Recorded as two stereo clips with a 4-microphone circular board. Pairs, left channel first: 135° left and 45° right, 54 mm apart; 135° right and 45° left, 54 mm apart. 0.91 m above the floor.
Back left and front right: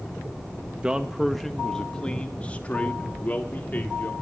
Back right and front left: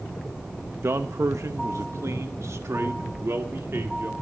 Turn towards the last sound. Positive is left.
turn(degrees=85)